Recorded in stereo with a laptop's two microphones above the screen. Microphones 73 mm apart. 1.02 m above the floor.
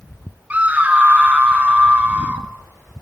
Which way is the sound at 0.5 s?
20° right (ahead or behind).